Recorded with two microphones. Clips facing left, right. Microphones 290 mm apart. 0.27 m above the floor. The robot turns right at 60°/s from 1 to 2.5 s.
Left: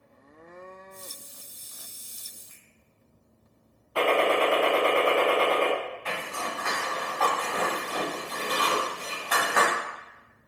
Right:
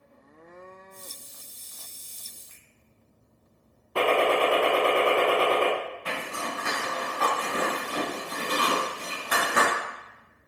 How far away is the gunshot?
About 1.2 m.